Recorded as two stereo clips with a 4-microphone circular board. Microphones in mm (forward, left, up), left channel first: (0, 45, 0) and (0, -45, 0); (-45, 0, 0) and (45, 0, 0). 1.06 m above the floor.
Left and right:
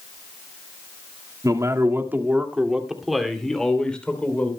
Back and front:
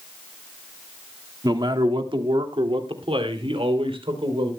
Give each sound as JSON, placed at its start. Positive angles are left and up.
{"t": 1.4, "sound": "a man speaking", "azimuth_deg": -40, "distance_m": 1.9}